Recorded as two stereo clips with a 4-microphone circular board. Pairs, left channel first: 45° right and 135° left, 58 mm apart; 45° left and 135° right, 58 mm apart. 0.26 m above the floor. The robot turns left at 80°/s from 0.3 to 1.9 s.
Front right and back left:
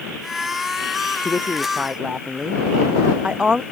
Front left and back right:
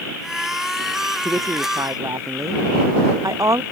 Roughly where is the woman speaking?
Right.